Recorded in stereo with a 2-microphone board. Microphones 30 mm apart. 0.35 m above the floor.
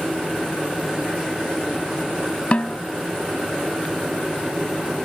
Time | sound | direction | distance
2.5 | a snare drum | 45° left (ahead or behind) | ?